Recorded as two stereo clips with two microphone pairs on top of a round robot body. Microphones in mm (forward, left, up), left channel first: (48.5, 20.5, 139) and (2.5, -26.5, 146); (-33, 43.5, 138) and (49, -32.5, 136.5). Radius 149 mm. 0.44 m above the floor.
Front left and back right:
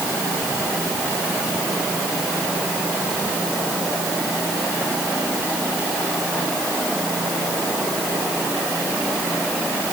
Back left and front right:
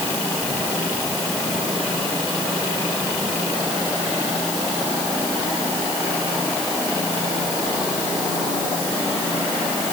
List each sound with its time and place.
Only background noise.